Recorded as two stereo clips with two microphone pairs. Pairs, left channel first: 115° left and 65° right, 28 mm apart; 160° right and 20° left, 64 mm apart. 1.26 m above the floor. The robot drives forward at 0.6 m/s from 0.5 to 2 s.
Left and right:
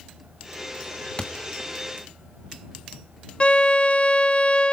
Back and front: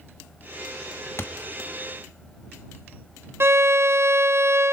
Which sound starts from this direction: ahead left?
A violin, at 3.4 s.